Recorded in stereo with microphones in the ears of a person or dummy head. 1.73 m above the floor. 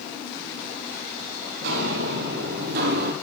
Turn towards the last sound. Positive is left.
turn(degrees=-55)  # may be behind; listen again after turning